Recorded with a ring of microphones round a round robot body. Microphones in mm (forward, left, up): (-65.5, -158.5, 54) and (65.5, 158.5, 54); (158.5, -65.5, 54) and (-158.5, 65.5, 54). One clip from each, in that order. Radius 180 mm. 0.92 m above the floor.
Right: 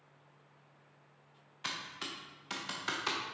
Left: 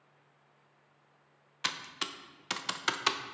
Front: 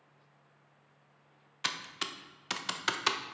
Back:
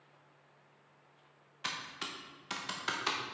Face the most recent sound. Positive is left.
turn(degrees=30)